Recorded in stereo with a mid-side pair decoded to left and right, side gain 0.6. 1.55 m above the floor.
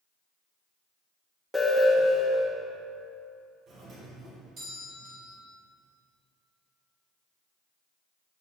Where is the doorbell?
50° right, 3 m.